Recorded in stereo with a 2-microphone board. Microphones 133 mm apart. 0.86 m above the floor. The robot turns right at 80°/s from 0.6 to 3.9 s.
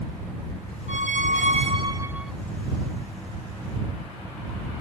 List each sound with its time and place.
0.9 s a squeak: 115° right; by 2.3 s straight ahead